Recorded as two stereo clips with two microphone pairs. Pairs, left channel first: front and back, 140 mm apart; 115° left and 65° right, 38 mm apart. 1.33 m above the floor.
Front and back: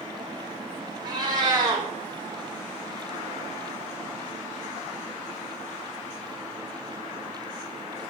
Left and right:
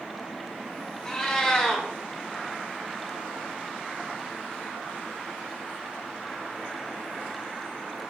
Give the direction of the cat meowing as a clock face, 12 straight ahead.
7 o'clock.